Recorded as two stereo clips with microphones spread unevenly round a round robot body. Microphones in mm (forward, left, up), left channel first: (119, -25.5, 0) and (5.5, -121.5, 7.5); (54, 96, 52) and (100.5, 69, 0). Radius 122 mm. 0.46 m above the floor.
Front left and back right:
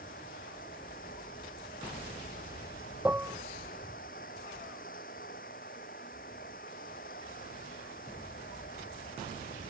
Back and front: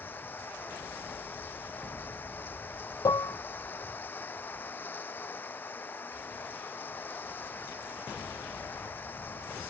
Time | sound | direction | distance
0.0 | running water | 100° left | ?
3.0 | dishes clattering | 135° left | ?